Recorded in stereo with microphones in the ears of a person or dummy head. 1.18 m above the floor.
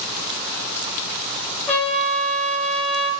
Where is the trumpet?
10° left (ahead or behind), 0.8 m.